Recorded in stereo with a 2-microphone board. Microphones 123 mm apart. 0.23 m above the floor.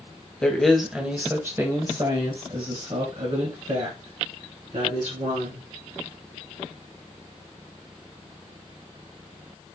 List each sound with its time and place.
0.4 s a woman speaking: 10° left (ahead or behind), 1.1 m; by 5.7 s 70° right (ahead or behind), 2.5 m